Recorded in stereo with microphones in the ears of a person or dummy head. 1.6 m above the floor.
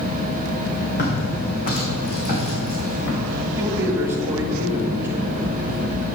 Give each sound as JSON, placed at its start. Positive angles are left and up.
{"t": 1.0, "sound": "footsteps", "side_deg": 50, "distance_m": 3.5}
{"t": 3.6, "sound": "a man speaking", "side_deg": -10, "distance_m": 2.0}